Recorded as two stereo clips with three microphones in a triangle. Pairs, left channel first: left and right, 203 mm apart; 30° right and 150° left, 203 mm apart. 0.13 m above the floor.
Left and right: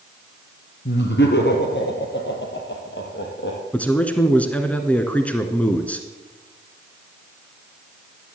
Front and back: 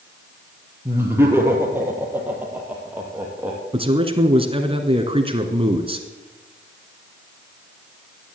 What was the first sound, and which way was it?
Laughter, 75° left.